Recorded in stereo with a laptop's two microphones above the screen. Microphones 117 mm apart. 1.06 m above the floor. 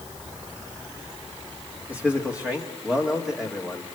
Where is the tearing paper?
I don't hear tearing paper.